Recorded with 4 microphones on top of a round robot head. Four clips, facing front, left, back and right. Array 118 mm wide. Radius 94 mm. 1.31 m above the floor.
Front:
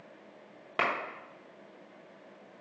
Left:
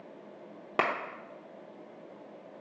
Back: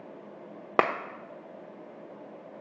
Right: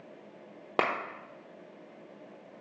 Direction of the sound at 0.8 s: 165° right.